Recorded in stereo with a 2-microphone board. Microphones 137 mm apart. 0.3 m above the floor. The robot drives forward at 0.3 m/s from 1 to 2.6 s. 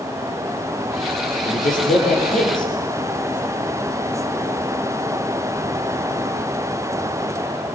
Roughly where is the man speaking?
Left.